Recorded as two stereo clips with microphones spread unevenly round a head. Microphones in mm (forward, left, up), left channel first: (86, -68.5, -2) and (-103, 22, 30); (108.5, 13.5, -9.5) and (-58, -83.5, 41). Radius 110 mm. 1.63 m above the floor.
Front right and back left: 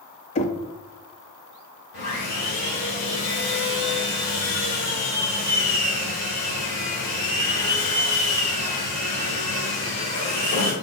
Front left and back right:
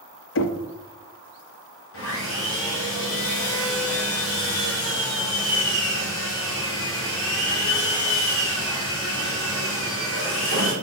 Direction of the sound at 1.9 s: 15° left.